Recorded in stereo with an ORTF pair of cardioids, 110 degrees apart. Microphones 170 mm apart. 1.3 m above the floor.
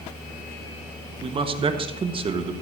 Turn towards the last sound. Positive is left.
turn(degrees=-30)